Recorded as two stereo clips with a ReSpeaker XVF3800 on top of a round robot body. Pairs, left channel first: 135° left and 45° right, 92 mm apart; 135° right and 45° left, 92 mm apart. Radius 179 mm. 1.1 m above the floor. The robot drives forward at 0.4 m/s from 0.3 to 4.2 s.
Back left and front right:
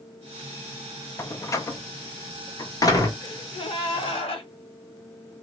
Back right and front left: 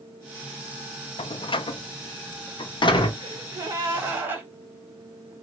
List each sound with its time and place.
1.2 s a door slam: 160° right, 0.5 m; by 3.1 s 170° right, 1.3 m
3.2 s a gasp: 90° left, 0.8 m; by 4.5 s 115° left, 0.9 m